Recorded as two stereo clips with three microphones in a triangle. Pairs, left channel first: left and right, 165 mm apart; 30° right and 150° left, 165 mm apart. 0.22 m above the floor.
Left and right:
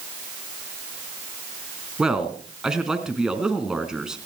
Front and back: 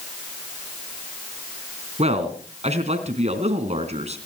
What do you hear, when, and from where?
2.0 s a man speaking: 175° right, 2.5 m